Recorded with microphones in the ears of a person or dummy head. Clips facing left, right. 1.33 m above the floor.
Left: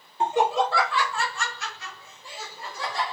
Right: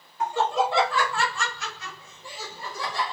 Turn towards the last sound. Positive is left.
turn(degrees=-85)